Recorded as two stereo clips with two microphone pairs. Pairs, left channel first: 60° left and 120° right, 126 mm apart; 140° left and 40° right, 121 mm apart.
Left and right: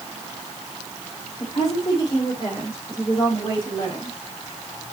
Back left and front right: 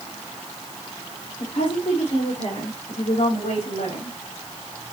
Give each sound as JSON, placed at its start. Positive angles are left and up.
{"t": 1.4, "sound": "a woman speaking", "azimuth_deg": 115, "distance_m": 4.0}